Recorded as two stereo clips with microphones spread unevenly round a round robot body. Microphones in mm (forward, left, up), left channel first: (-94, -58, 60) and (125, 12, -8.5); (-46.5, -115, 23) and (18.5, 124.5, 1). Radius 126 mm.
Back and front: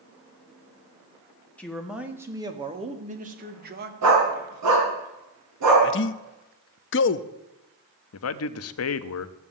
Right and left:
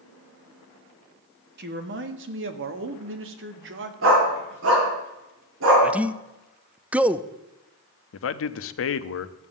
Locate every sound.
1.6 s a man speaking: 100° left, 1.5 m; by 3.9 s 40° left, 2 m
4.0 s a dog barking: 30° left, 5 m
5.8 s a man speaking: 155° left, 0.6 m
8.1 s a man speaking: 135° right, 0.9 m